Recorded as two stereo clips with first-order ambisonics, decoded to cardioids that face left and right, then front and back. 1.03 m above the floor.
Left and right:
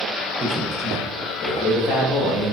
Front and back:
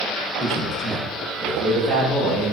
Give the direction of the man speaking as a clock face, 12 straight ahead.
3 o'clock.